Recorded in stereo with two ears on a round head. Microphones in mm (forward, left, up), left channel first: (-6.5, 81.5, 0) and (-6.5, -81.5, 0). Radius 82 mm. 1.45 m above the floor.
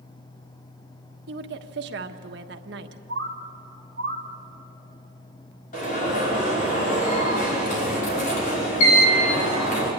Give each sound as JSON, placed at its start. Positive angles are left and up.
{"t": 1.3, "sound": "a woman speaking", "side_deg": -65, "distance_m": 1.3}
{"t": 3.1, "sound": "a bird", "side_deg": -70, "distance_m": 1.8}
{"t": 5.7, "sound": "an alarm", "side_deg": 45, "distance_m": 5.5}